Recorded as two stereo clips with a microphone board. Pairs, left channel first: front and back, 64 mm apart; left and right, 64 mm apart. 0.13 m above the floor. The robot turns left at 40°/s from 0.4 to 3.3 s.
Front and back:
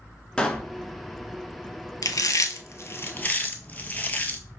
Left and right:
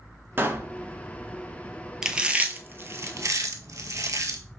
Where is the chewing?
10° right, 0.6 m; by 4.4 s 60° right, 0.6 m.